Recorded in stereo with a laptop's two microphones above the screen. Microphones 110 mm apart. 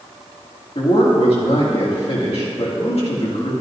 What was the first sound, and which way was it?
A man speaking, 70° left (ahead or behind).